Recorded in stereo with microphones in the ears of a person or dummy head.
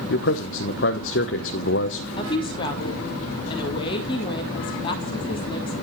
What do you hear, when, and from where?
0.1 s a man speaking: 60° left (ahead or behind), 1.2 m
2.2 s a woman speaking: 30° left (ahead or behind), 3 m